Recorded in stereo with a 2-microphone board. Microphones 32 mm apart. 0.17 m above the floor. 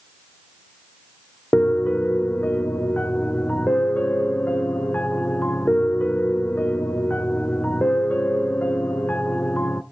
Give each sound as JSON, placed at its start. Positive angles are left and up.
{"t": 1.5, "sound": "a piano", "side_deg": 55, "distance_m": 0.6}